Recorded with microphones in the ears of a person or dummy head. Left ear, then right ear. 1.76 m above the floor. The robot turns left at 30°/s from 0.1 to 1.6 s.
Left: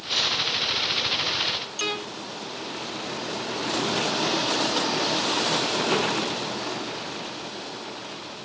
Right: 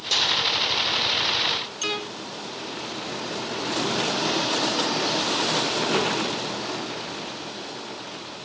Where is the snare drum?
60° right (ahead or behind), 3.5 m; by 0.3 s 55° right (ahead or behind), 3.5 m.